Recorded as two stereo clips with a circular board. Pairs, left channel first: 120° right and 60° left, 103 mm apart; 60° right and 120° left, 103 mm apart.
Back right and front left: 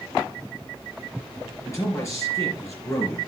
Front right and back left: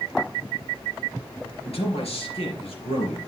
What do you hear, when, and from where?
1.6 s a man speaking: 60° right, 4 m